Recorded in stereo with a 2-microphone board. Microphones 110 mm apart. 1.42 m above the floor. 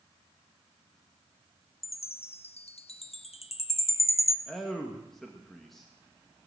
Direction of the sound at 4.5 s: Centre (ahead or behind).